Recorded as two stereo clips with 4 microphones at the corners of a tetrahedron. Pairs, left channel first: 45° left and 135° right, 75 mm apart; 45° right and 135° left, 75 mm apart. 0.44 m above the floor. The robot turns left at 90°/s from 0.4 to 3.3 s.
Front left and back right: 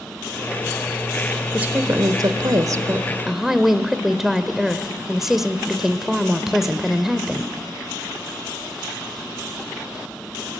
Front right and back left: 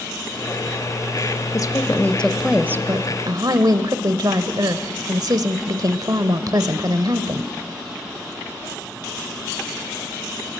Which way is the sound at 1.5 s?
65° right.